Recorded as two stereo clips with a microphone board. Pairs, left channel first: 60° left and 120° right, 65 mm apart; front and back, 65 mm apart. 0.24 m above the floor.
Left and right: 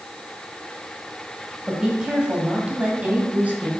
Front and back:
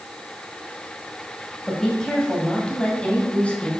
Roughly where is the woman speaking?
Ahead right.